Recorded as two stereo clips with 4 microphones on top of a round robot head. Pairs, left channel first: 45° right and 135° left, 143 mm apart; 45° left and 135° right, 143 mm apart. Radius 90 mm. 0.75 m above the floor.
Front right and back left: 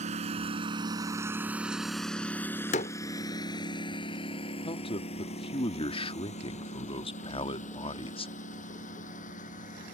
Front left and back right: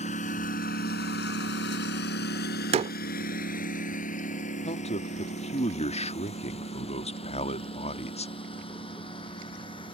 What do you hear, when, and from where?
0.0 s a lawn mower: 95° left; by 9.9 s 10° right
2.7 s a door slam: 90° right
4.7 s a man speaking: 5° left